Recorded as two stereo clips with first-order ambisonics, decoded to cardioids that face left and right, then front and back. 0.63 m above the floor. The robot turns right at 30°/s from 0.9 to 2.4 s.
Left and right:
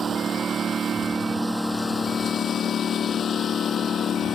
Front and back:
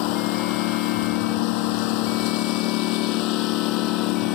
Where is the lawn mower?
20° right; by 4.3 s 25° left.